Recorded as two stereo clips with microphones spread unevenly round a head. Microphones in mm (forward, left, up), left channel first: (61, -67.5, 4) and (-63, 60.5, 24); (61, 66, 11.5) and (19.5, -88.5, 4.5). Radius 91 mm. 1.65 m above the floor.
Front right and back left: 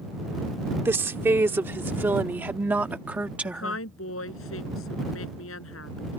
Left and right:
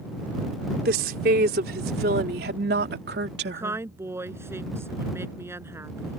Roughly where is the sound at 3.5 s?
Ahead right.